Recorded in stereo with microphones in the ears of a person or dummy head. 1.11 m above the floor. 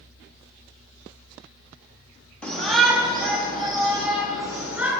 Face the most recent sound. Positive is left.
turn(degrees=0)  # may be behind; listen again after turning